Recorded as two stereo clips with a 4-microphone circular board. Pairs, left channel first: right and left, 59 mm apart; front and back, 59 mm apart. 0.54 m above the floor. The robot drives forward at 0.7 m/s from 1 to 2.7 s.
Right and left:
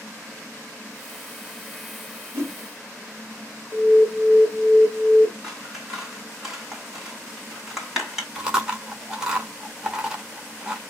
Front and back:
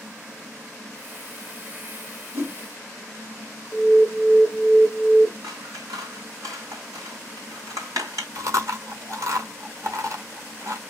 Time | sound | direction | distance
2.3 | a whoosh | 130° left | 2.5 m
3.7 | an alarm | 100° right | 1.7 m
5.4 | scissors | 175° left | 3 m
8.3 | chewing | 165° left | 1.4 m